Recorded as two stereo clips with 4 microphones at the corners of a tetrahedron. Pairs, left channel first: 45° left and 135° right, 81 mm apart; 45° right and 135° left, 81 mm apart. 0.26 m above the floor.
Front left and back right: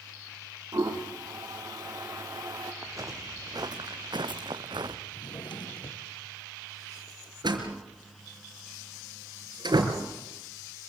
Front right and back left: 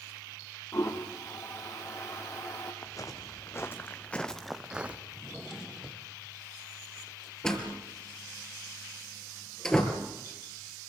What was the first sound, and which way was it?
A toilet flushing, 95° right.